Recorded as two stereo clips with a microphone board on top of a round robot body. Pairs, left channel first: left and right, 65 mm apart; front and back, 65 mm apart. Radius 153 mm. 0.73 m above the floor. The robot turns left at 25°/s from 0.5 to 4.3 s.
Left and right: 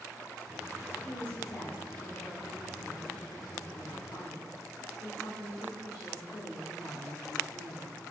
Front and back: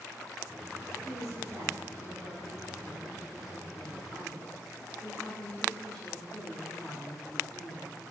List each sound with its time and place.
1.0 s a woman speaking: 155° left, 2.5 m; by 8.0 s 75° left, 2.5 m